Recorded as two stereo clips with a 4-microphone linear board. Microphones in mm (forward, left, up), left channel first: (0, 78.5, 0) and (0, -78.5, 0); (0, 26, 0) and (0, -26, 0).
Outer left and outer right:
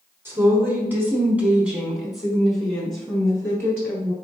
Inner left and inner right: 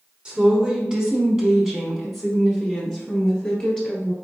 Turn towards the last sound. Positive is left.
turn(degrees=10)  # may be behind; listen again after turning